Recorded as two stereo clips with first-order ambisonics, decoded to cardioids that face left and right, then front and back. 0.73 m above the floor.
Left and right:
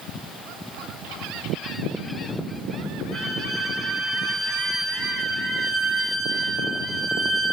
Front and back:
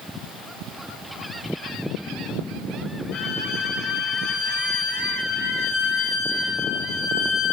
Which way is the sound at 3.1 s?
5° left.